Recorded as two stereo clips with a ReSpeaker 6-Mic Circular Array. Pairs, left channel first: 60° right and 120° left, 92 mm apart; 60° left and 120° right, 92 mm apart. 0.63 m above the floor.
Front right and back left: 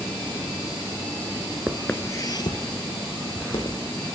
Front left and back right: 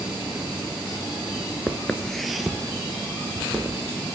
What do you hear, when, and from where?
1.7 s footsteps: 90° left, 0.6 m; by 3.8 s 40° right, 2.5 m